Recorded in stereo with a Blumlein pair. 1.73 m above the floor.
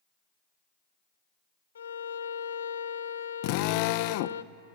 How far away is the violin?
About 0.7 m.